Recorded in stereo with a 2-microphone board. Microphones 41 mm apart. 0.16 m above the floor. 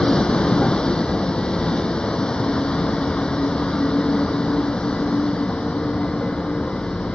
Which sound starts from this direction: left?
A vehicle, at 0.0 s.